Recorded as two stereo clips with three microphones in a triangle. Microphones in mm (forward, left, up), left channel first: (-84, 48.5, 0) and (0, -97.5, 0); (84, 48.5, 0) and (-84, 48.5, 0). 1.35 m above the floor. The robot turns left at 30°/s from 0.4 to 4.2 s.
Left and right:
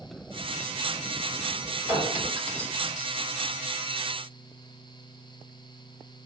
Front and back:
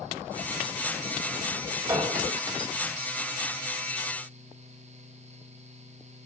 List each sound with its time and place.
1.9 s a clink: 115° right, 2 m; by 3.2 s 155° right, 2 m